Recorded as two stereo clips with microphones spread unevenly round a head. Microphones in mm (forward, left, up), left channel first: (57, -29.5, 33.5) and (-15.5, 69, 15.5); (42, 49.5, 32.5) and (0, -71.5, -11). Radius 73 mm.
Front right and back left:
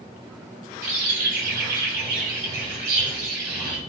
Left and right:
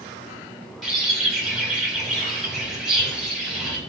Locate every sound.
0.8 s a bird: 150° left, 2.5 m